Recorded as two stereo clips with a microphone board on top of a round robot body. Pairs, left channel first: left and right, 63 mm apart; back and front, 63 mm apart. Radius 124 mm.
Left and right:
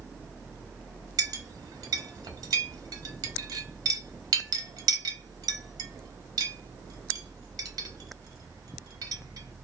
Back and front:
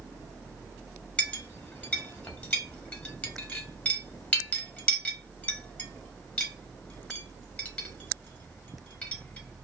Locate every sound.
1.2 s a clink: 110° right, 0.7 m